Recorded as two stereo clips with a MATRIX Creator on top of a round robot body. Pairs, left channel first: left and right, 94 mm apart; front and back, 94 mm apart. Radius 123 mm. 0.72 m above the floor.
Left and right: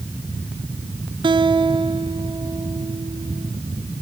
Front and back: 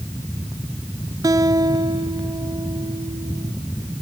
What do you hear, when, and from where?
1.2 s a guitar: 125° right, 1.4 m